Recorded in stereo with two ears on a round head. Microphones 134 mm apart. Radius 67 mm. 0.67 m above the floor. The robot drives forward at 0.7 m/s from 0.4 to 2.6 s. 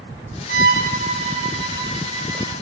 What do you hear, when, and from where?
0.5 s a violin: 75° right (ahead or behind), 0.7 m; by 2.5 s 25° right (ahead or behind), 1.8 m